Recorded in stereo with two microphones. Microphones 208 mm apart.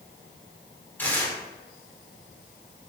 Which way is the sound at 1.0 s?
10° left (ahead or behind).